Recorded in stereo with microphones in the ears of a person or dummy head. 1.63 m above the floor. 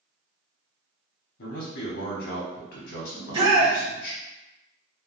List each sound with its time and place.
1.4 s a man speaking: 55° left (ahead or behind), 0.9 m
3.1 s a shout: 30° right (ahead or behind), 0.9 m